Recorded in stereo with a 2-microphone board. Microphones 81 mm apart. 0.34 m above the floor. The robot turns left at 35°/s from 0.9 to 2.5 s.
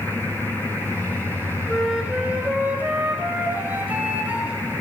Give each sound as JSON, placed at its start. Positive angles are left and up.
{"t": 1.7, "sound": "a flute", "side_deg": 0, "distance_m": 1.9}